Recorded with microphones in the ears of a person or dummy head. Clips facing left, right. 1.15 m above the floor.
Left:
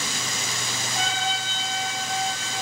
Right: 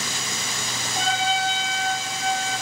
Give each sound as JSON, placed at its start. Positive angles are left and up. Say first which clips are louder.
{"t": 0.9, "sound": "a trumpet", "louder": "right 5 dB", "side_deg": 50, "distance_m": 1.8}